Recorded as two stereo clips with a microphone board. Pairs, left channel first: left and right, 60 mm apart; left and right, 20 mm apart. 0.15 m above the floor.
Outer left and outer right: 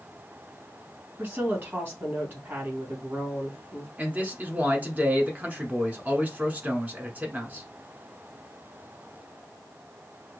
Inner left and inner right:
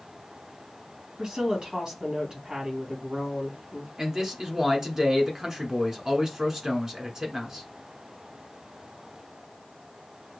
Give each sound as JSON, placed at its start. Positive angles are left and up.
{"t": 1.2, "sound": "a woman speaking", "side_deg": -40, "distance_m": 2.5}
{"t": 4.0, "sound": "a man speaking", "side_deg": -25, "distance_m": 1.3}